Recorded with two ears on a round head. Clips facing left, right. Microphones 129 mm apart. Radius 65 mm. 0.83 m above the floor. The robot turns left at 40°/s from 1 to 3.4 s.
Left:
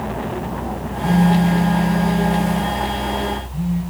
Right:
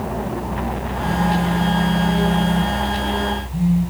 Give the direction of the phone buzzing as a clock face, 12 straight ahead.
10 o'clock.